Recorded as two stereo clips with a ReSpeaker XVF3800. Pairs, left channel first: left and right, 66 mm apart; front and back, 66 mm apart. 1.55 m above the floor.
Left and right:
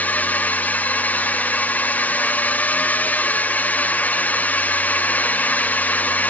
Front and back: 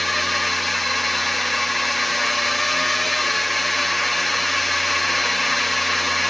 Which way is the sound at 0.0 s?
90° left.